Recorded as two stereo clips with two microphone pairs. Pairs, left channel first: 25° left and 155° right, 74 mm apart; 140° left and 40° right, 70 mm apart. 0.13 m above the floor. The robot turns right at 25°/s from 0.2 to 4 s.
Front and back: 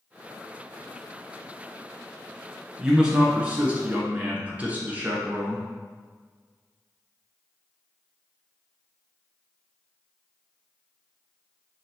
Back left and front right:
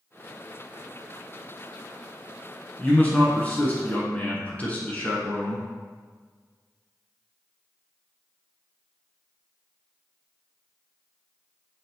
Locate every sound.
2.8 s a man speaking: 135° left, 1.1 m; by 5.7 s 165° left, 1.1 m